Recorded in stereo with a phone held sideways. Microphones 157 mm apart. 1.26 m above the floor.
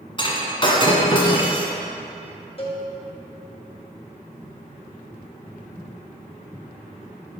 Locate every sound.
0.2 s breaking glass: 35° left (ahead or behind), 1.7 m
2.6 s a cowbell: 40° left (ahead or behind), 4 m